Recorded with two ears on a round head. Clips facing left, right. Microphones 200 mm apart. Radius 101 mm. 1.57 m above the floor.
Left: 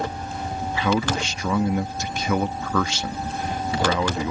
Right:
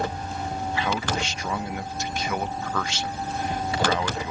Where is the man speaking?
75° left (ahead or behind).